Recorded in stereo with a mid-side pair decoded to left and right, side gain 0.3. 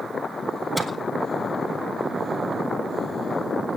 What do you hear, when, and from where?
0.8 s a microwave: straight ahead, 5 m